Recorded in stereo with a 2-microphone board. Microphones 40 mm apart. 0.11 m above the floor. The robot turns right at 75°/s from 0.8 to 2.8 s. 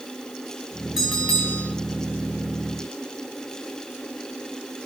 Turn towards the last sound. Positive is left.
turn(degrees=125)